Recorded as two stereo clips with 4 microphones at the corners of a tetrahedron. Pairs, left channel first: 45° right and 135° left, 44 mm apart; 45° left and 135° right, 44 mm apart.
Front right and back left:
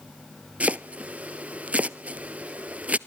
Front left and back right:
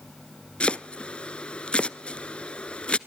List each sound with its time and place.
0.6 s chopping: 100° left, 0.7 m